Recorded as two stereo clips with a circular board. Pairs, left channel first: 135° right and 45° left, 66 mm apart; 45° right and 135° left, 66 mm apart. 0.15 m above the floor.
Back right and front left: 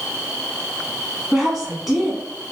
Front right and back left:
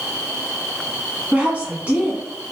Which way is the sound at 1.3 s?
125° left.